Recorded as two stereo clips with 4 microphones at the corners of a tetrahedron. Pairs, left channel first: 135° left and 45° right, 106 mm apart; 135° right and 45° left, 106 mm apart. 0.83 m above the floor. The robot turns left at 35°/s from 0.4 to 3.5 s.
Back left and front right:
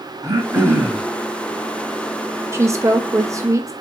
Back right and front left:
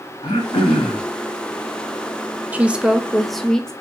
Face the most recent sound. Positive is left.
turn(degrees=-55)